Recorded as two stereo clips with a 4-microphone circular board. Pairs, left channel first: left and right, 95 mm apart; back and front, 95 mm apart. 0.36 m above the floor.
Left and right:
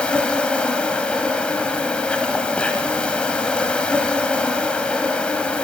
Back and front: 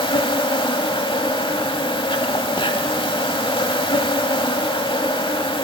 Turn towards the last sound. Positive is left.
turn(degrees=165)